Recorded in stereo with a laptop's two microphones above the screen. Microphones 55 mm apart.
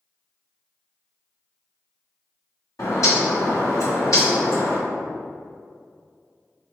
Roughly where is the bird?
Left.